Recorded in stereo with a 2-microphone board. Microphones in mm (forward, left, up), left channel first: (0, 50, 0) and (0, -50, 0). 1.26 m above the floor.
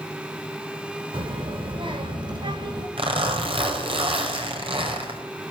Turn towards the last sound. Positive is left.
turn(degrees=-65)  # may be behind; listen again after turning